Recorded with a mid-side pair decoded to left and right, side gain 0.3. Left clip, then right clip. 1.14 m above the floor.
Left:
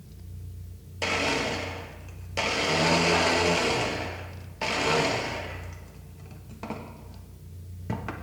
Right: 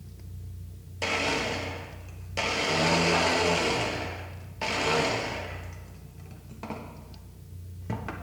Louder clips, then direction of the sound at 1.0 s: Left 1 dB; 15° left.